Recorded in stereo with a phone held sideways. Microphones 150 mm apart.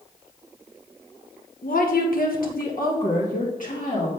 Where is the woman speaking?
70° left (ahead or behind), 1.0 m; by 4.1 s 60° left (ahead or behind), 1.8 m.